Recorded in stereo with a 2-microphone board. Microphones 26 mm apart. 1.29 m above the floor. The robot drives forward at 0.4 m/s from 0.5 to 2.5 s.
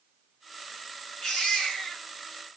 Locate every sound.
1.2 s a baby crying: 15° left (ahead or behind), 5 m; by 2.0 s 20° left (ahead or behind), 5 m